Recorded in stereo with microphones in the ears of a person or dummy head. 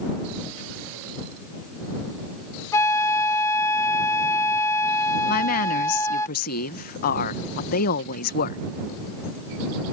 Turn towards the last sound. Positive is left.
turn(degrees=45)  # may be behind; listen again after turning